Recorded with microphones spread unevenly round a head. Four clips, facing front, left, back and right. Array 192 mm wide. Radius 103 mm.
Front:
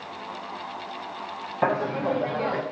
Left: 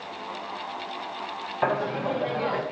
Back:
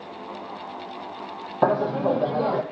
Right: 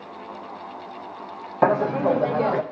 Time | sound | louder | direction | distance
1.6 | laughter | right 7 dB, back 3 dB | 135° right | 0.6 m